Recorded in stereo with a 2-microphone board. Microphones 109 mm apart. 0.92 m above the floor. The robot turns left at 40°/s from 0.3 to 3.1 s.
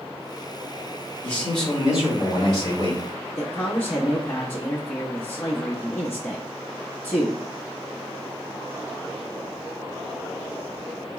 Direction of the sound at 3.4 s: 20° left (ahead or behind).